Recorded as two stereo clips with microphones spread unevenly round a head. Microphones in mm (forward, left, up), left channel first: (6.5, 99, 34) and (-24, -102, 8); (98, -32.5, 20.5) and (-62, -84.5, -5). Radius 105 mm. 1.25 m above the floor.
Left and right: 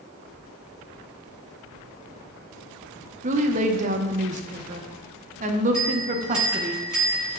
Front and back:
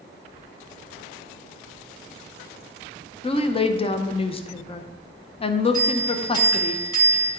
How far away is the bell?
About 3 m.